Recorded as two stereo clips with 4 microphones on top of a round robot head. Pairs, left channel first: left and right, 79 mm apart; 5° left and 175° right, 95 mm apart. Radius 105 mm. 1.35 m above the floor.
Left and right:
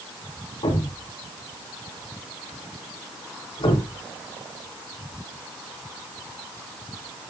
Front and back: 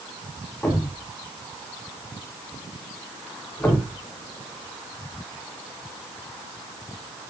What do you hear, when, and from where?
0.6 s a thud: 80° left, 5.5 m